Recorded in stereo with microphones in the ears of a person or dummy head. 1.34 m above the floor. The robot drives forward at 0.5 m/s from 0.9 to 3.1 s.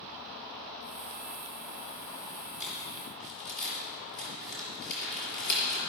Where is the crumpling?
65° left (ahead or behind), 5 m; by 5.8 s 60° left (ahead or behind), 5 m.